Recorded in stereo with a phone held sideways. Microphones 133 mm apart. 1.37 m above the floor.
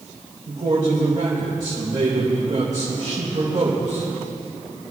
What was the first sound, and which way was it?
A man speaking, 75° right (ahead or behind).